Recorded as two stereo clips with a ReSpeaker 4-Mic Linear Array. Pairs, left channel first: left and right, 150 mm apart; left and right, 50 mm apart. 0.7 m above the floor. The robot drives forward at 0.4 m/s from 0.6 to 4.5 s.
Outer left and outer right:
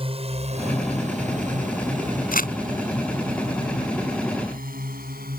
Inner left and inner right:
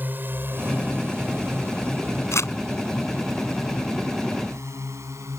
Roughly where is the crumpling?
Left.